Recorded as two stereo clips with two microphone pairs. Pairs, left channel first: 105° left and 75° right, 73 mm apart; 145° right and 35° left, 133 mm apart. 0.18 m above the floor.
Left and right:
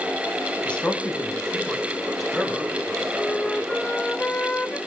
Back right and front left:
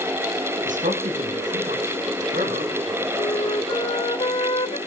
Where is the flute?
175° right, 0.6 m.